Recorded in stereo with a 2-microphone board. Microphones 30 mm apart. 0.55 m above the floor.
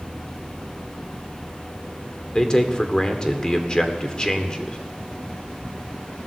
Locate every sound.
2.4 s a man speaking: 25° left (ahead or behind), 1.5 m